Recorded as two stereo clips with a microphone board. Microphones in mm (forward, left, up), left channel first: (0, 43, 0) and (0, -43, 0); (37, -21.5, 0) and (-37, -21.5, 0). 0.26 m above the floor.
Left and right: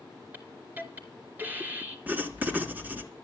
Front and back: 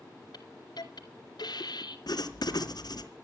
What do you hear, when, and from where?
0.3 s a hiss: 20° right, 3 m
2.1 s writing: 20° right, 2.5 m